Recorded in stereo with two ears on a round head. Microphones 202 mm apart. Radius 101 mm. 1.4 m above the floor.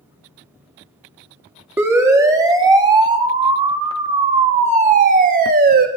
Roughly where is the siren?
Centre.